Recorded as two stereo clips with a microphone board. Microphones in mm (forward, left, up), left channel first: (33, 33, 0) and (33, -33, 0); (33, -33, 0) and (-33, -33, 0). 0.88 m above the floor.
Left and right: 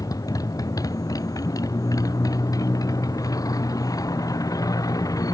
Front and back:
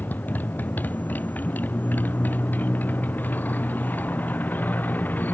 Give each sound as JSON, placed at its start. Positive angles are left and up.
{"t": 0.0, "sound": "a motorcycle", "azimuth_deg": 65}